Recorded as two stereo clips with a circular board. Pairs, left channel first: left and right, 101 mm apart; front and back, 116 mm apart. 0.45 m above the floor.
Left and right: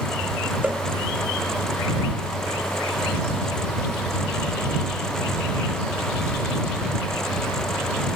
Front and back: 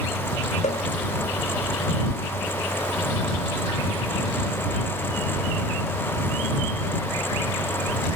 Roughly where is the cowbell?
Ahead.